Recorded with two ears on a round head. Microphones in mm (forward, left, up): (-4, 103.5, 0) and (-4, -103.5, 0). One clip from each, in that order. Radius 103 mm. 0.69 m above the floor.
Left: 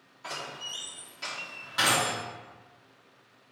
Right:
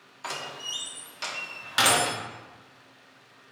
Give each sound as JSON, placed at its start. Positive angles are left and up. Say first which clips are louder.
{"t": 0.2, "sound": "a door slam", "louder": "right 3 dB", "side_deg": -45, "distance_m": 0.8}